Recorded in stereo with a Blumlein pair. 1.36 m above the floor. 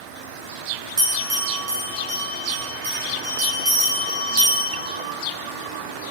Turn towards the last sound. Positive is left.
turn(degrees=-55)